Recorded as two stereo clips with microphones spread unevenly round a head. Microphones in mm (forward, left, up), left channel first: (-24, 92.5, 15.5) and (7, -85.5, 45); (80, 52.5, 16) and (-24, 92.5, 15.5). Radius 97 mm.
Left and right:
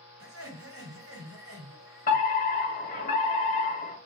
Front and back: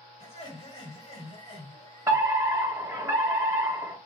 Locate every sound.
0.2 s laughter: 70° right, 3 m
2.1 s a fire alarm: 105° left, 1.6 m